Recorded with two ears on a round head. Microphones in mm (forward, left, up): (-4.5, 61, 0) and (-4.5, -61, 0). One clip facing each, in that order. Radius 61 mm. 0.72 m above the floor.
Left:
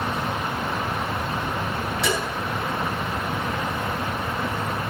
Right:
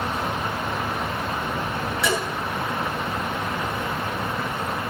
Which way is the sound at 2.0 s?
25° left (ahead or behind).